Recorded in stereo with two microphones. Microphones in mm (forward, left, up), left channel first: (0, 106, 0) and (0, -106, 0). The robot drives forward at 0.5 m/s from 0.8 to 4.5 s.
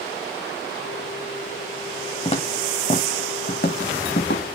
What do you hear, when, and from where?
2.2 s footsteps: 30° left (ahead or behind), 1.5 m; by 4.6 s 55° left (ahead or behind), 2.0 m